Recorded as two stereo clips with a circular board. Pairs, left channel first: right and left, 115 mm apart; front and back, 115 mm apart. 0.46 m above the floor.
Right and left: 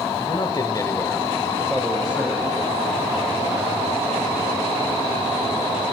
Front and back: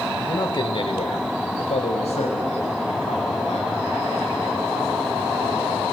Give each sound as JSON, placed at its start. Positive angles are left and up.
{"t": 0.2, "sound": "a man speaking", "azimuth_deg": -60, "distance_m": 1.8}